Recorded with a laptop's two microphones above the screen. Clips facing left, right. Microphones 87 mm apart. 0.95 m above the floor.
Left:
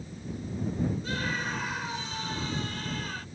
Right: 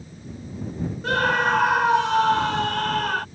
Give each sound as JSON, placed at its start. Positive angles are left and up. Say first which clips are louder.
{"t": 1.0, "sound": "a scream", "louder": "right 12 dB", "side_deg": -80}